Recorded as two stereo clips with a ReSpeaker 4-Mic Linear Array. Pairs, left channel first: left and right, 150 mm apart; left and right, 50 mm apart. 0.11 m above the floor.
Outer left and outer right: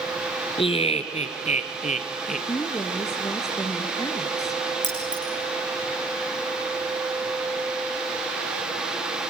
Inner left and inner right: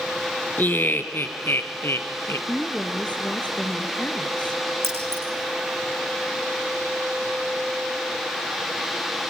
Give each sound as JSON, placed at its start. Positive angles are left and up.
{"t": 0.6, "sound": "laughter", "side_deg": 35, "distance_m": 1.5}
{"t": 2.5, "sound": "a woman speaking", "side_deg": 25, "distance_m": 1.6}
{"t": 4.8, "sound": "keys jangling", "side_deg": -50, "distance_m": 6.0}